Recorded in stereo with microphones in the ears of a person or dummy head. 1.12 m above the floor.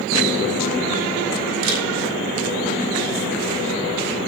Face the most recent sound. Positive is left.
turn(degrees=-75)  # may be behind; listen again after turning